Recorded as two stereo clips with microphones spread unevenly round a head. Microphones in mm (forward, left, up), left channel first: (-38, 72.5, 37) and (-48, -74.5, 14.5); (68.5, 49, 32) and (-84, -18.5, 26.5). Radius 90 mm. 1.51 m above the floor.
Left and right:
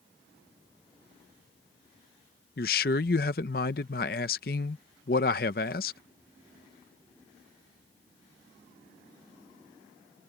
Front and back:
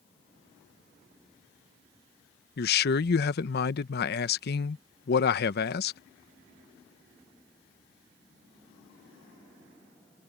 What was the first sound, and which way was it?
A man speaking, 50° left.